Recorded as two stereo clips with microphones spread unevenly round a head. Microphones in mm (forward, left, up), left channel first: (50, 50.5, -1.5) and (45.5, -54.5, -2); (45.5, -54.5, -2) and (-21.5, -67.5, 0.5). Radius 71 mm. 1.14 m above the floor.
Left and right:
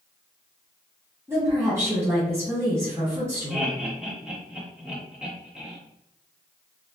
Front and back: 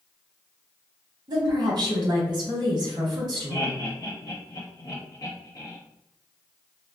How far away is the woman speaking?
About 1.2 m.